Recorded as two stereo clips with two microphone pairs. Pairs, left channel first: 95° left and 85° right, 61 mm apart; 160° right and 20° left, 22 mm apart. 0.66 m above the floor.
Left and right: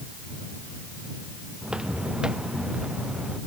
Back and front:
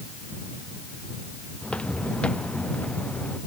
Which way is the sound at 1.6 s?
160° right.